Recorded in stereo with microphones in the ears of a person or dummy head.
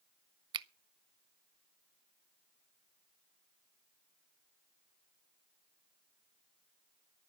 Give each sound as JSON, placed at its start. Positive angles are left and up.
{"t": 0.5, "sound": "a finger snap", "side_deg": -30, "distance_m": 0.6}